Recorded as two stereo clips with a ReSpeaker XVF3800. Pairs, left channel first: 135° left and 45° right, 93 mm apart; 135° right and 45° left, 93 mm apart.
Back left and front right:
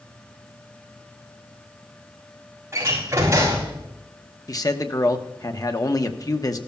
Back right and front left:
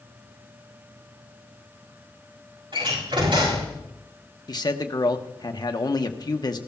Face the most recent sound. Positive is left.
turn(degrees=-175)